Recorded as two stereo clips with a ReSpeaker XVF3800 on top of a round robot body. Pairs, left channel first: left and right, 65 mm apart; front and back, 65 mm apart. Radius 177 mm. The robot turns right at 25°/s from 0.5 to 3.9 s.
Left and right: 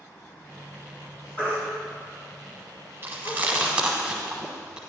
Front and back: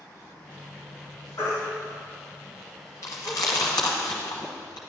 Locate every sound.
1.4 s a baby crying: 30° left, 3.5 m; by 3.4 s 80° left, 3.5 m
3.0 s chewing: 35° right, 1.0 m; by 4.8 s 15° right, 1.0 m